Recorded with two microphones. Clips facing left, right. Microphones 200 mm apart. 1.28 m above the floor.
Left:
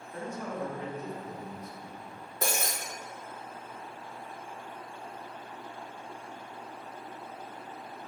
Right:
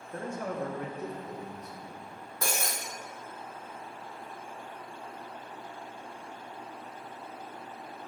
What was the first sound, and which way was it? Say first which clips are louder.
A man speaking: right 2 dB; 45° right (ahead or behind).